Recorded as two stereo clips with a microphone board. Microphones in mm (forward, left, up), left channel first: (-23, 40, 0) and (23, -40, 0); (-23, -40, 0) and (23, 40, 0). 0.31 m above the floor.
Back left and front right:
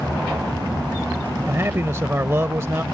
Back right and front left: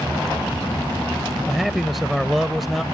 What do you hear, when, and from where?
1.5 s a man speaking: 30° right